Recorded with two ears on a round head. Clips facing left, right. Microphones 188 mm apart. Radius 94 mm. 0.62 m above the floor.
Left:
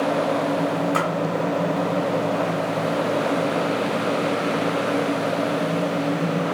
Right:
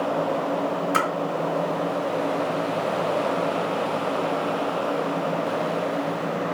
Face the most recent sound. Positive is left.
turn(degrees=-25)  # may be behind; listen again after turning